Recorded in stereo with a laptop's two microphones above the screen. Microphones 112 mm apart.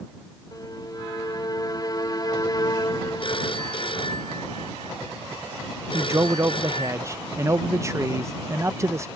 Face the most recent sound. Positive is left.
turn(degrees=-25)  # may be behind; listen again after turning